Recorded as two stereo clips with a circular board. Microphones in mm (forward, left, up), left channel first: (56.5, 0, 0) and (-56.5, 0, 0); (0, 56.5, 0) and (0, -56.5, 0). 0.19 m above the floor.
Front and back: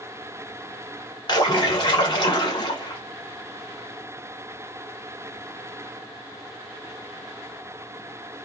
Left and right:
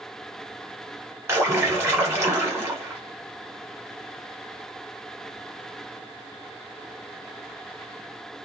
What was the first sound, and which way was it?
A splash, 30° right.